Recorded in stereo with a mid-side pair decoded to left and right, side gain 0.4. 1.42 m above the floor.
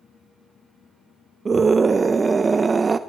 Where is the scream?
35° right, 0.9 m.